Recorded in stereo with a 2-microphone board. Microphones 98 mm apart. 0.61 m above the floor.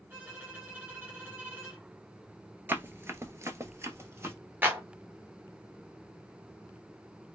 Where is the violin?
20° right (ahead or behind), 1.5 m.